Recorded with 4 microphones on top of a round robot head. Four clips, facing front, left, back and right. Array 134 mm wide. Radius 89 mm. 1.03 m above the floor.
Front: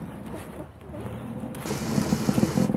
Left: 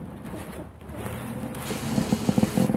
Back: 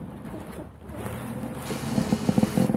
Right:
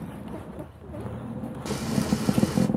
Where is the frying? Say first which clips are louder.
Even, even; 35° right, 0.6 m.